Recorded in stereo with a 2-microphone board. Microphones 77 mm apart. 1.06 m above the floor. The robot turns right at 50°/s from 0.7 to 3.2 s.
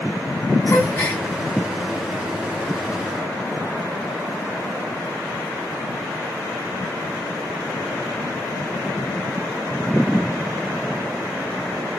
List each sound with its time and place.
0.7 s a gasp: 40° left (ahead or behind), 1.3 m; by 1.2 s 20° left (ahead or behind), 1.3 m